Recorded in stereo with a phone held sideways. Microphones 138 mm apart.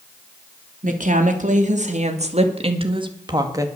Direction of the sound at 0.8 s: 70° right (ahead or behind).